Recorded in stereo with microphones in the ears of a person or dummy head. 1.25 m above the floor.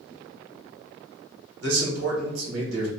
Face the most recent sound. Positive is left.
turn(degrees=-80)